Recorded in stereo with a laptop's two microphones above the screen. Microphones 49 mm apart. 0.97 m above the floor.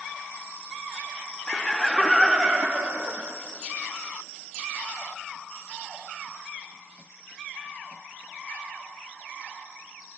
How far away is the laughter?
About 1.1 m.